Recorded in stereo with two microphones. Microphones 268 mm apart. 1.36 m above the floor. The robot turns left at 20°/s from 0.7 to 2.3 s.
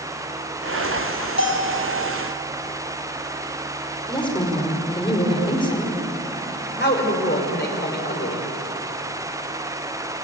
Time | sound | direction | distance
1.4 | a bell | 65° left (ahead or behind) | 4.5 m
4.1 | a woman speaking | 20° left (ahead or behind) | 4.5 m
6.8 | a man speaking | 40° left (ahead or behind) | 4 m